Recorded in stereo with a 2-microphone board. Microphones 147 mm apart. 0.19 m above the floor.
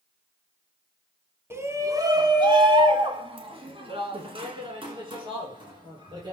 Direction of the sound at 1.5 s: 15° right (ahead or behind).